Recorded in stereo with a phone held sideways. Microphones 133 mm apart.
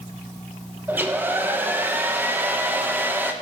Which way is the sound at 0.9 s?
15° right (ahead or behind).